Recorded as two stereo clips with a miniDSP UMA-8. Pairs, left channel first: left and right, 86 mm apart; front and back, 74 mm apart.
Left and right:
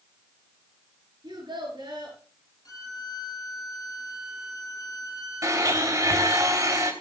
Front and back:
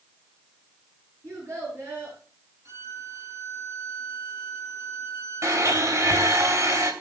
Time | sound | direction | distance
1.2 | a child speaking | 125° right | 9.5 m
2.6 | a violin | 135° left | 7.5 m
5.4 | a blender | 135° right | 3 m